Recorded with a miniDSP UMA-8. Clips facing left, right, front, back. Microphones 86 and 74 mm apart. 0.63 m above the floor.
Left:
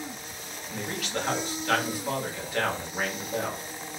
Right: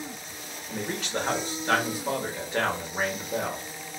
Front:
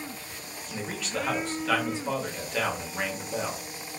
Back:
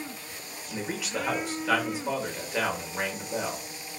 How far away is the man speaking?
About 1.0 m.